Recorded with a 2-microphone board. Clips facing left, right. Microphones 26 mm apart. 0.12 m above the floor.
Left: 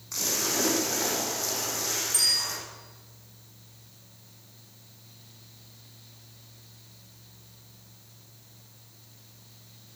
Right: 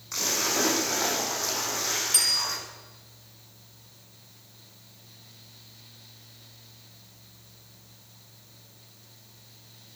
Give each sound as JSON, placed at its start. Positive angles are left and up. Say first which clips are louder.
{"t": 0.1, "sound": "a splash", "louder": "right 2 dB", "side_deg": -15, "distance_m": 5.5}
{"t": 2.1, "sound": "a bicycle bell", "louder": "even", "side_deg": -65, "distance_m": 5.5}